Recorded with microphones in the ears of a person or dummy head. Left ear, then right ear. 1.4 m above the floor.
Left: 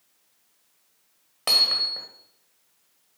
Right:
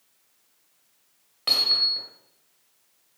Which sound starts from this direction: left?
Hammering, at 1.5 s.